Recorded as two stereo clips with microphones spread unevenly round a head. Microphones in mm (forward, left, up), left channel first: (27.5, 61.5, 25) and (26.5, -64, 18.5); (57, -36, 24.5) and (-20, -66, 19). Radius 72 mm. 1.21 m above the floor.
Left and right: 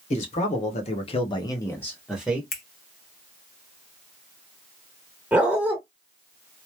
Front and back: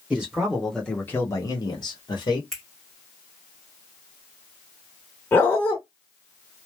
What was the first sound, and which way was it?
A man speaking, 125° left.